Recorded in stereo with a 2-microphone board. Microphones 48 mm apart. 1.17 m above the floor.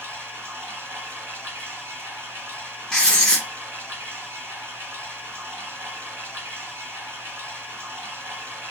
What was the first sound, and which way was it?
Running water, 60° right (ahead or behind).